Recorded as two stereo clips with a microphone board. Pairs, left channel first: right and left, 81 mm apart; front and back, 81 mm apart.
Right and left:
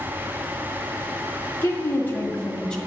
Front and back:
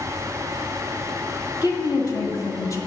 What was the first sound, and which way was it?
A woman speaking, 30° right.